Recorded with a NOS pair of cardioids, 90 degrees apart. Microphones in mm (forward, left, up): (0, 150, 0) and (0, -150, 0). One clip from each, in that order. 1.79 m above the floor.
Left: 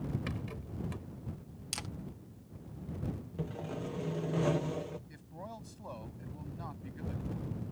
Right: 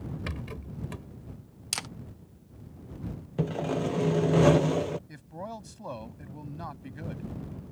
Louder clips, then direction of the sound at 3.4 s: Right 12 dB; 65° right.